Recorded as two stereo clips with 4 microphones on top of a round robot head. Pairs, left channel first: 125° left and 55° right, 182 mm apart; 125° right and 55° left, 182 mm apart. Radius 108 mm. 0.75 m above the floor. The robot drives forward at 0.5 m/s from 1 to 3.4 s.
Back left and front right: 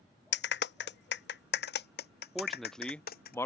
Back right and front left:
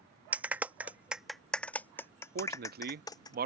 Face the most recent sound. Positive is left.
turn(degrees=55)